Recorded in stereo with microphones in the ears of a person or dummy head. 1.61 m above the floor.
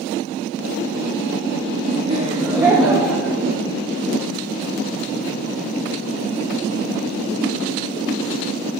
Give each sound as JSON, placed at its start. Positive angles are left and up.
{"t": 2.0, "sound": "laughter", "side_deg": -40, "distance_m": 1.0}